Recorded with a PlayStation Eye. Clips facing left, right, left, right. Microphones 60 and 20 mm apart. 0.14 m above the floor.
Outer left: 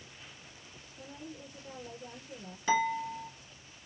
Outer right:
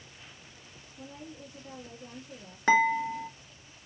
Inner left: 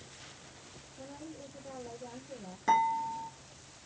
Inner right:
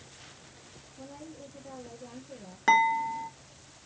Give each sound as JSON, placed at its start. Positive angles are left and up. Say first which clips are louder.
{"t": 1.0, "sound": "a woman speaking", "louder": "outer right 1 dB, inner right 1 dB", "side_deg": 0, "distance_m": 3.5}
{"t": 2.7, "sound": "dishes clattering", "louder": "outer right 6 dB, inner right 5 dB", "side_deg": -50, "distance_m": 1.5}